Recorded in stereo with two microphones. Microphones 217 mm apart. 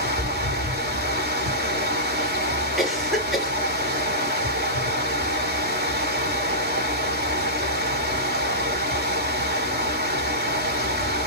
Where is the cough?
Centre (ahead or behind), 1.4 m.